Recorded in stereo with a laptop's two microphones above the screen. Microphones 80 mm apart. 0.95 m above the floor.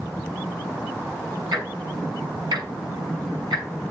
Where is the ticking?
60° right (ahead or behind), 5.5 m.